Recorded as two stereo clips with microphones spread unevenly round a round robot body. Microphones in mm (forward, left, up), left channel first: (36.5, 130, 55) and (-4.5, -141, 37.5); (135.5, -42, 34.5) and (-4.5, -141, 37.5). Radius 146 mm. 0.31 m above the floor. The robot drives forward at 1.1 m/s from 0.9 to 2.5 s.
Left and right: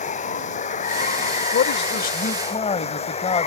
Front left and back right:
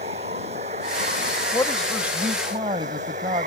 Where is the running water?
145° left; by 3.5 s 150° left.